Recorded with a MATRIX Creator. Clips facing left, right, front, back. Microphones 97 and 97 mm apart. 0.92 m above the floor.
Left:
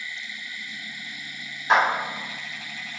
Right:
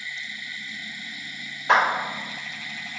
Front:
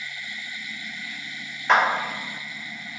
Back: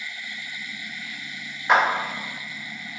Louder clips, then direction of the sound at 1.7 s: Even, even; 100° right.